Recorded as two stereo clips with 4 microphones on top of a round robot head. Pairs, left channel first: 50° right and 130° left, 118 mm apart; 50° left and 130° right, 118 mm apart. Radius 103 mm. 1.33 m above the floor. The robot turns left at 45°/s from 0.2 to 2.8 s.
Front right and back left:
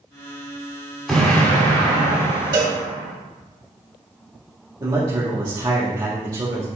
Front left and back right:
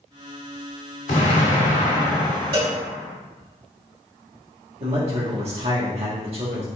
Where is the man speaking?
170° right, 1.3 m.